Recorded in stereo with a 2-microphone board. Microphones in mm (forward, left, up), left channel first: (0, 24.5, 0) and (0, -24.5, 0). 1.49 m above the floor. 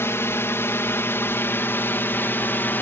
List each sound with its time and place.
0.0 s a drone: 55° left (ahead or behind); by 2.8 s 45° left (ahead or behind)